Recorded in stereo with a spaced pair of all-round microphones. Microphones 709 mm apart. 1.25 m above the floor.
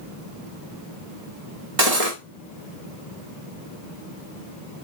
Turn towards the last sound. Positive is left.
turn(degrees=-60)  # may be behind; listen again after turning